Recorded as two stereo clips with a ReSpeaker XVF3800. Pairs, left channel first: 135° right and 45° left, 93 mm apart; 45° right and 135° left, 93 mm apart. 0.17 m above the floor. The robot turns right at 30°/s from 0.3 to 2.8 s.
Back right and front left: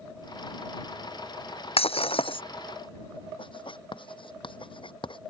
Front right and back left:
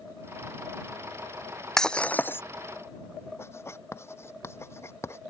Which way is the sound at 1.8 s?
130° right.